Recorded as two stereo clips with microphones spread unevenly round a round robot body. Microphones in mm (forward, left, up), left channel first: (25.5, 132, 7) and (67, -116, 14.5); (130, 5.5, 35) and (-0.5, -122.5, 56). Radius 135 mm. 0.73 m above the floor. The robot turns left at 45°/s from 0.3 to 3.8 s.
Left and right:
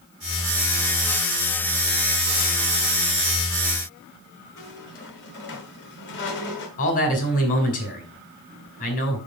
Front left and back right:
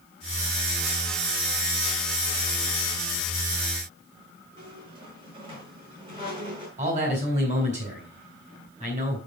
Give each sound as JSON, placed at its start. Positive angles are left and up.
{"t": 4.6, "sound": "a squeak", "azimuth_deg": 155, "distance_m": 1.3}
{"t": 6.8, "sound": "a man speaking", "azimuth_deg": 160, "distance_m": 2.5}